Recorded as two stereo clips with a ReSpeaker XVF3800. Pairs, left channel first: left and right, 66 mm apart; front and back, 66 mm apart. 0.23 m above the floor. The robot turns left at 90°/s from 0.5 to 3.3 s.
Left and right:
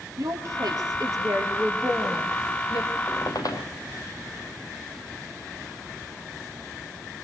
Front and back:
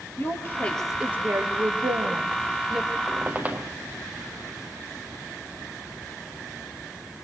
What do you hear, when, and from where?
0.2 s a woman speaking: 55° right, 4 m; by 3.0 s 80° left, 4 m
3.1 s a squeak: 135° left, 2.5 m; by 3.7 s 115° left, 2.5 m